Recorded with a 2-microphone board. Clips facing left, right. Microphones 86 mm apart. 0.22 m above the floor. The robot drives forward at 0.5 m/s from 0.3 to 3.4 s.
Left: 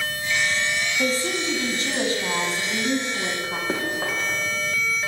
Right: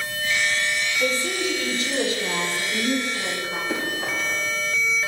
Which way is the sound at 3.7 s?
45° left (ahead or behind).